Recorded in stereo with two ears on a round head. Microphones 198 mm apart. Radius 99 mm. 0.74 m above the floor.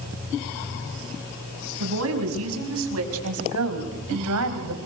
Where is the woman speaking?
65° right (ahead or behind), 6 m; by 4.8 s 80° right, 4.5 m.